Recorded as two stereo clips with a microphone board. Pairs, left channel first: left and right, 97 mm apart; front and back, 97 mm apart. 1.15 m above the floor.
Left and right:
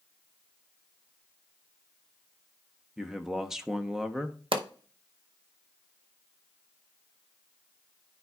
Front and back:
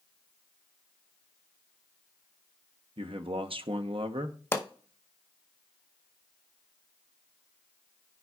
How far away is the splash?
No splash in this recording.